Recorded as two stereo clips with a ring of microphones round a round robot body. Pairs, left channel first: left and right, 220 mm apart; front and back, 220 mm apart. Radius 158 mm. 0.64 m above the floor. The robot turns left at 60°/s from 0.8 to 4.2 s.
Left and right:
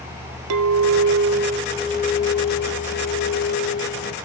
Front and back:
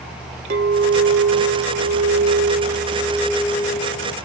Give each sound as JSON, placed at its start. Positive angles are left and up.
{"t": 0.5, "sound": "a clink", "azimuth_deg": -120, "distance_m": 0.8}